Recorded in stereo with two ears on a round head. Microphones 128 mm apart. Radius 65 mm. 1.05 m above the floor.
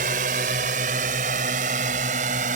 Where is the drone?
60° right (ahead or behind); by 2.6 s 55° right (ahead or behind).